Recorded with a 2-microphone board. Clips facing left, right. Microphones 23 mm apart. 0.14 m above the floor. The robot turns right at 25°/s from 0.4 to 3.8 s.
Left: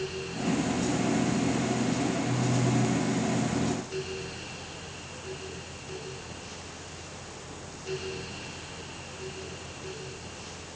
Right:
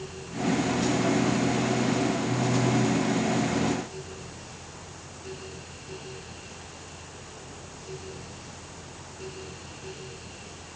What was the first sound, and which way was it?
Only background noise.